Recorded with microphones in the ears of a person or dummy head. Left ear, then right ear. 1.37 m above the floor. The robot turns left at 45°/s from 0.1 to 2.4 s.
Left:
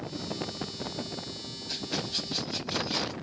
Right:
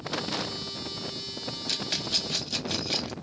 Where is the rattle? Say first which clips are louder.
Right 4 dB; 50° right (ahead or behind), 0.5 m; by 3.1 s 35° right (ahead or behind), 0.5 m.